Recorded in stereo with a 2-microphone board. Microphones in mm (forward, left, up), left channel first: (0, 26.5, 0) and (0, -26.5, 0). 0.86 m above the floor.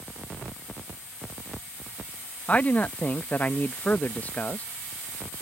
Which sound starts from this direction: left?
A man speaking, at 2.5 s.